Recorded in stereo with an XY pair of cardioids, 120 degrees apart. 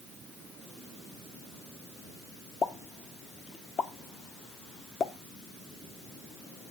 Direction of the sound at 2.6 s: 50° left.